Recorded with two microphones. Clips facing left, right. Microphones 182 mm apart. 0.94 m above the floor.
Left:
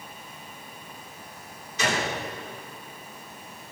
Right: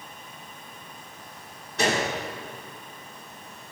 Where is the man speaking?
I don't hear a man speaking.